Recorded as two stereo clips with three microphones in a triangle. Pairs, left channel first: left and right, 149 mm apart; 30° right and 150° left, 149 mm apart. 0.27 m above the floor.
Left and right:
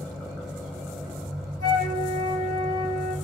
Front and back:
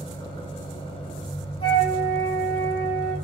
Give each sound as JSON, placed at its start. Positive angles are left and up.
{"t": 0.0, "sound": "an engine running", "azimuth_deg": 0, "distance_m": 0.8}
{"t": 1.6, "sound": "a flute", "azimuth_deg": 20, "distance_m": 1.7}